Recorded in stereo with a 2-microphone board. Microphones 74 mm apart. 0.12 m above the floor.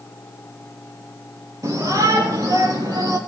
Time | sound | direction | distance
1.6 | a shout | 50° right (ahead or behind) | 4.5 m